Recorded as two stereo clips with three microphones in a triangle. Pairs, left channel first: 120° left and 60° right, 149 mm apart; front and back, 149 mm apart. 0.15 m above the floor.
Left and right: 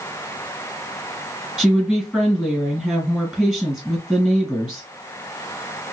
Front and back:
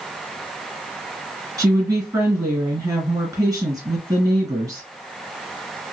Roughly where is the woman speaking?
Behind right.